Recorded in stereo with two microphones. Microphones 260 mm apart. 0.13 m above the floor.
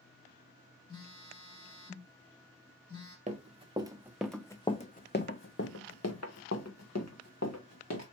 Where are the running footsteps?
30° right (ahead or behind), 1.0 m; by 8.0 s 85° left, 1.8 m.